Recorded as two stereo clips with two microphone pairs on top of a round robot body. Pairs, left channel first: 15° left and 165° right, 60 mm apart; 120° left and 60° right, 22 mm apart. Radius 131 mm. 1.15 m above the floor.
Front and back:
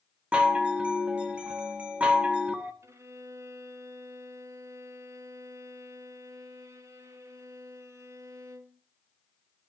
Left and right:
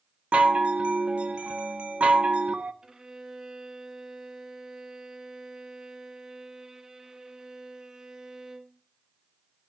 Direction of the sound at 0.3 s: 90° right.